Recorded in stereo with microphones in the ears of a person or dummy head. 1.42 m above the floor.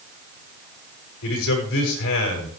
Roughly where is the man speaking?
Left.